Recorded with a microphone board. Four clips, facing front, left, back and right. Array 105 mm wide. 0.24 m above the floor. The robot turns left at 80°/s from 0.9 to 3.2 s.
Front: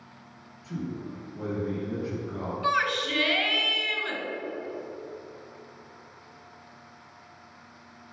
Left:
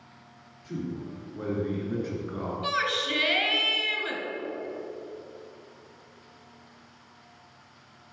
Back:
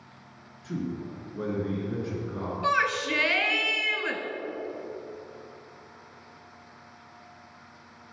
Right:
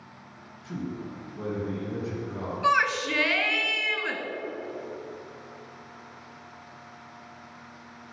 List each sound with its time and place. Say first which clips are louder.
0.6 s a man speaking: even, back 2 dB; 160° right, 2.5 m; by 2.5 s 70° left, 2.5 m
2.6 s a shout: right 7 dB, back 1 dB; 100° right, 1.2 m; by 4.2 s 145° right, 1.2 m